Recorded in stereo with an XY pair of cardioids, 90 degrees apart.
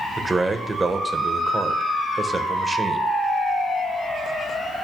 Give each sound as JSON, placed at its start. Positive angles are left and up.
{"t": 0.2, "sound": "a man speaking", "azimuth_deg": -30, "distance_m": 1.3}